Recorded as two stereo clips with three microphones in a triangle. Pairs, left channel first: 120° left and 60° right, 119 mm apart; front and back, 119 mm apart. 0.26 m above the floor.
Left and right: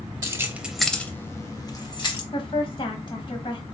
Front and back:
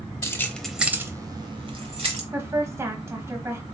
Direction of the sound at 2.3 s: 120° left.